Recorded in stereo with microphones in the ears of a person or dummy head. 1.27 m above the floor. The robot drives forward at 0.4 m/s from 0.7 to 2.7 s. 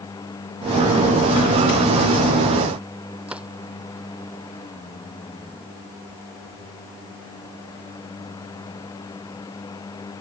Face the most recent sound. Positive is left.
turn(degrees=-5)  # may be behind; listen again after turning